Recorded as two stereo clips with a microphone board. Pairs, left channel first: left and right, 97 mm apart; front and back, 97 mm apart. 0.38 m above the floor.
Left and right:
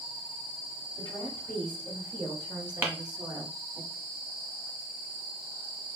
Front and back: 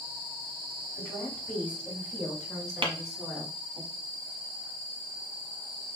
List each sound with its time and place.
1.0 s a woman speaking: 70° right, 1.8 m; by 3.8 s 135° right, 0.9 m
2.8 s tapping: 155° right, 0.9 m